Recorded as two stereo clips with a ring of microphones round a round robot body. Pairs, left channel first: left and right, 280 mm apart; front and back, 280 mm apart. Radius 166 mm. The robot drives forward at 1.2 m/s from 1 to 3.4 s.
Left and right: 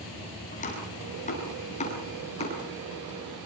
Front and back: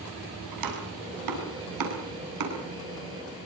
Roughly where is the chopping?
Behind left.